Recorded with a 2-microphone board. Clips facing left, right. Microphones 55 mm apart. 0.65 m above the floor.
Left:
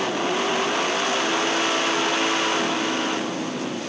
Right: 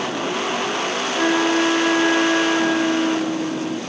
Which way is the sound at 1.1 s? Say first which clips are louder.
Right 5 dB; 75° right (ahead or behind).